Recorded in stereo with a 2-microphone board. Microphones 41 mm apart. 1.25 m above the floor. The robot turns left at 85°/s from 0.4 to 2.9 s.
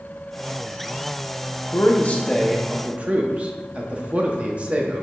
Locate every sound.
1.7 s a man speaking: 65° left (ahead or behind), 0.6 m; by 5.0 s 30° right (ahead or behind), 0.6 m